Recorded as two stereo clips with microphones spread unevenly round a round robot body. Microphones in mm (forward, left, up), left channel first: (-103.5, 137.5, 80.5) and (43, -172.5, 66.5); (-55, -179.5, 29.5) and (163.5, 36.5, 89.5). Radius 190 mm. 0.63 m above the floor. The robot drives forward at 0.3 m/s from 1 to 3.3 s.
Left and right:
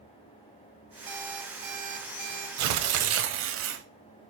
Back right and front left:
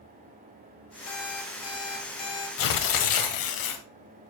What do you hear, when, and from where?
1.1 s an alarm clock: 90° right, 3 m; by 2.5 s 100° right, 3 m
2.6 s tearing paper: 110° right, 1.0 m; by 3.9 s 120° right, 1.1 m